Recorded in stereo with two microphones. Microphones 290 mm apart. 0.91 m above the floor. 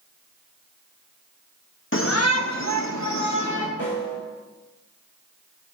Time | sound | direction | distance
1.9 | a shout | 45° left (ahead or behind) | 1.0 m
3.8 | a snare drum | 55° left (ahead or behind) | 3.5 m